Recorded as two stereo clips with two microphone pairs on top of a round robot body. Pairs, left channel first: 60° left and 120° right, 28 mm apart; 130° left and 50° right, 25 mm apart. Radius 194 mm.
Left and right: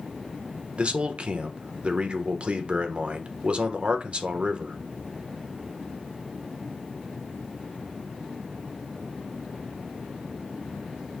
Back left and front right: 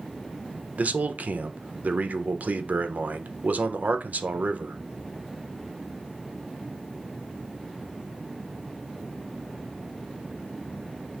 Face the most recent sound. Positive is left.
turn(degrees=-70)